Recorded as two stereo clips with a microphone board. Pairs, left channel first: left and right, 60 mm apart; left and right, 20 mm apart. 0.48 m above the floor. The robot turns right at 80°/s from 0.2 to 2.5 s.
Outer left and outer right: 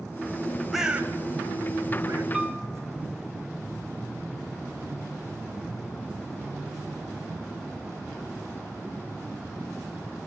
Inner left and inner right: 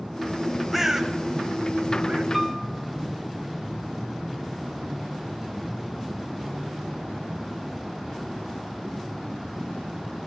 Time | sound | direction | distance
0.7 | a bird | centre (ahead or behind) | 1.8 m
2.3 | a piano | 15° right (ahead or behind) | 1.8 m